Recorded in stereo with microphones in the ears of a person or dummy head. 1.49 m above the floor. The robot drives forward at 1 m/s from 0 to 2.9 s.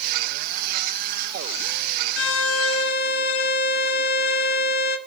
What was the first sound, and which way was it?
A violin, 65° left (ahead or behind).